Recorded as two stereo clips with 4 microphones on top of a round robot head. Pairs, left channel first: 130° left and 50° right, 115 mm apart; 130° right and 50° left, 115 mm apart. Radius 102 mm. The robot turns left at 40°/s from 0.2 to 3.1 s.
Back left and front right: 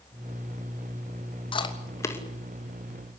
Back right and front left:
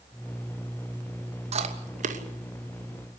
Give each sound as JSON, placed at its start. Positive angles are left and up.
{"t": 1.5, "sound": "chewing", "azimuth_deg": 85, "distance_m": 3.0}